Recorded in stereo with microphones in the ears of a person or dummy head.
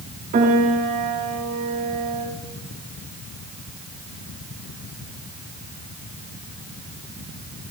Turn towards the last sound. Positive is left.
turn(degrees=-40)  # may be behind; listen again after turning